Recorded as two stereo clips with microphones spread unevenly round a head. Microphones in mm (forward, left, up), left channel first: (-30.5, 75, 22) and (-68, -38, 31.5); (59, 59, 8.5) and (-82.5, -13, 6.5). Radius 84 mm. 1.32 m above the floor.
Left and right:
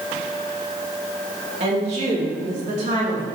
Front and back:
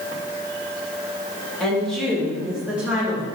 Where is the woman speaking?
60° right, 3 m; by 3.2 s 75° right, 3 m.